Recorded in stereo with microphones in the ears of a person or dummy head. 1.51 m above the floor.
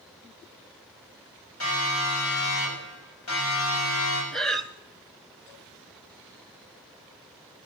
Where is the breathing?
Centre (ahead or behind), 0.7 m.